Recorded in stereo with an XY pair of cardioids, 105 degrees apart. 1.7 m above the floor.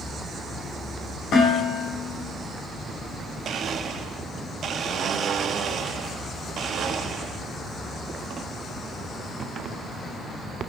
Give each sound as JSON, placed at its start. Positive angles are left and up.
{"t": 1.3, "sound": "dishes clattering", "azimuth_deg": 70, "distance_m": 5.5}
{"t": 3.5, "sound": "a blender", "azimuth_deg": -60, "distance_m": 0.8}